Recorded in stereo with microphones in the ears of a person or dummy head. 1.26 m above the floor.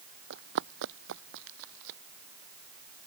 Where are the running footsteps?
60° right (ahead or behind); by 2.0 s 65° right (ahead or behind).